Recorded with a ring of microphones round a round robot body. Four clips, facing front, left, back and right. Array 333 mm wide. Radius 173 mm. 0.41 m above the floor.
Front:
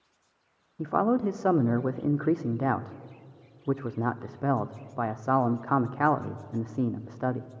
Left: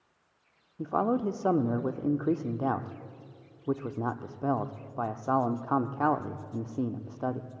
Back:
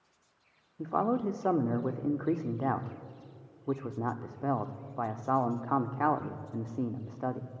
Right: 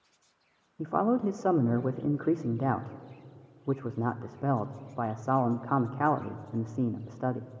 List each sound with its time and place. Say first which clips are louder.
0.8 s a man speaking: right 1 dB, front 4 dB; 10° right, 0.8 m